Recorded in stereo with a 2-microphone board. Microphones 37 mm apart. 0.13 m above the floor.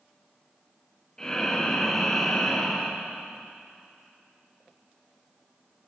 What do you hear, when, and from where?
1.2 s breathing: 15° left (ahead or behind), 3 m